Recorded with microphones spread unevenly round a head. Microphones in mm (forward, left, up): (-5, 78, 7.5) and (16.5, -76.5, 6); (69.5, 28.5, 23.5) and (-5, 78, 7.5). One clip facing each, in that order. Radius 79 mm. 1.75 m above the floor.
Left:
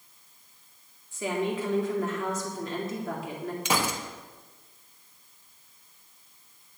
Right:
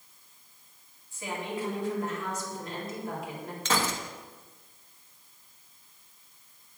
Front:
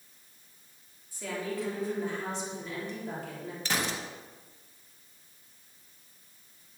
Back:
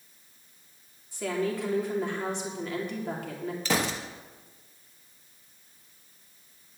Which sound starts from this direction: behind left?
A woman speaking, at 1.1 s.